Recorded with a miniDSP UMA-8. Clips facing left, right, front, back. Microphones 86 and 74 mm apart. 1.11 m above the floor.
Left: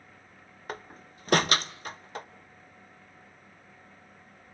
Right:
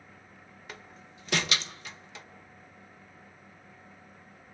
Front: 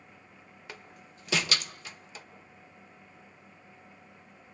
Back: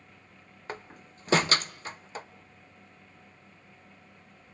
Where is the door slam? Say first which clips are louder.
Left 8 dB, back 8 dB; 130° left, 0.7 m.